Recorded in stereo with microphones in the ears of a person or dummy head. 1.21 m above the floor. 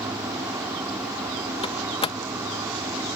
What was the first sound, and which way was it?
An insect, 10° right (ahead or behind).